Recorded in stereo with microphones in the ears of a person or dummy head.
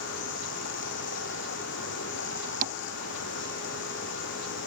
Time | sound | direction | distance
0.0 | running water | 60° left (ahead or behind) | ?
2.6 | tapping | 45° right (ahead or behind) | ?